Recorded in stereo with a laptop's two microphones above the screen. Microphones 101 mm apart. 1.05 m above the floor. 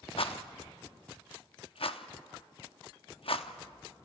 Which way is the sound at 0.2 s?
65° left (ahead or behind).